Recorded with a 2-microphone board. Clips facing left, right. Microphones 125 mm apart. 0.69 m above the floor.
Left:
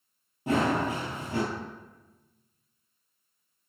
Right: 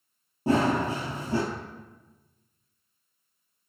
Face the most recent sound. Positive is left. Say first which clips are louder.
# right 2 dB
turn(degrees=-35)  # may be behind; listen again after turning